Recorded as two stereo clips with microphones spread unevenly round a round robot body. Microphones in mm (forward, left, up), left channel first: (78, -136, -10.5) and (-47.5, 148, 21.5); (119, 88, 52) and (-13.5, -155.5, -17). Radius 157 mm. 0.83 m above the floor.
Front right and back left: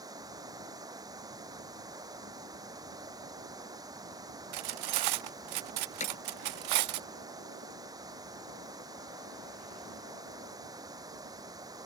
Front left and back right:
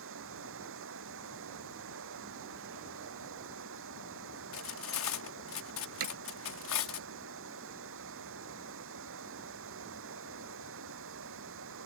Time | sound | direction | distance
0.0 | running water | 170° right | ?
4.5 | cutlery clinking | 110° left | ?
6.0 | hammering | 135° right | ?